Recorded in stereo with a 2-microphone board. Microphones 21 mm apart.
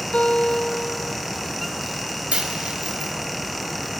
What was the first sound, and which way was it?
A guitar, 75° left (ahead or behind).